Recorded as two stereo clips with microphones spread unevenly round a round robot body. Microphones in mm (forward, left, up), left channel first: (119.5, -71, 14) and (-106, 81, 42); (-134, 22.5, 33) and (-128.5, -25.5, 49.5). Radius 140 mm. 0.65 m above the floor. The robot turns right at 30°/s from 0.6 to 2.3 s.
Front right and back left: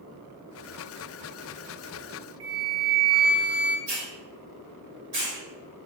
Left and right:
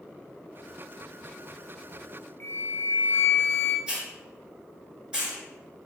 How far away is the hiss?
About 1.9 m.